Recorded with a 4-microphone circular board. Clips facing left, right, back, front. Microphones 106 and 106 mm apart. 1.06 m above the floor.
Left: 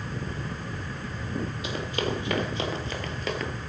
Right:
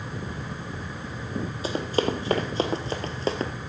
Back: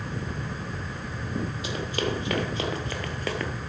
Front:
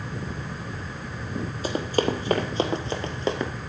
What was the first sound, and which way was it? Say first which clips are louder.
Running footsteps: right 7 dB, front 8 dB; 45° right.